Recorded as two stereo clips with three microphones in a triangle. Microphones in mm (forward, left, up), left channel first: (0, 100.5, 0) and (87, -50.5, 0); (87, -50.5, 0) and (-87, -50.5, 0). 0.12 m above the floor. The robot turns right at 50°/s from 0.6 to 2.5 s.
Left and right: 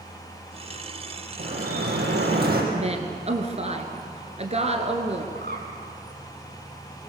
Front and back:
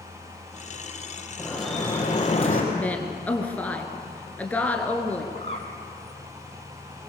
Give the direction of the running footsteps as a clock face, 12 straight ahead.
I don't hear running footsteps.